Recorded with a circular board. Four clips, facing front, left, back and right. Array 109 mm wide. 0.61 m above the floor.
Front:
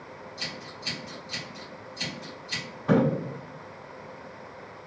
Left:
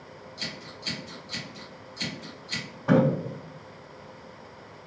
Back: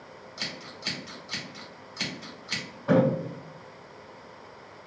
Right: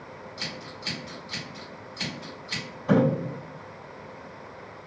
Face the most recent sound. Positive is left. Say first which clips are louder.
# left 1 dB, even
turn(degrees=100)